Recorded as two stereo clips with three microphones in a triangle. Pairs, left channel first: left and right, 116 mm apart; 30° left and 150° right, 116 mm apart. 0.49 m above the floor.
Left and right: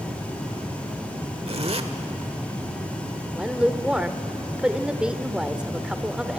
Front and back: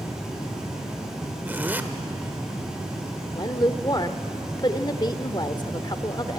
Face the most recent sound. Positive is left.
turn(degrees=-10)